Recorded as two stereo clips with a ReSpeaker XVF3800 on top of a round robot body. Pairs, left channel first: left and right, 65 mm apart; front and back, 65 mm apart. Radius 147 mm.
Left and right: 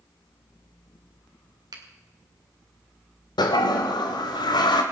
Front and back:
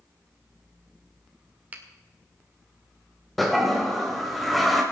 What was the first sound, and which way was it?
A finger snap, 115° right.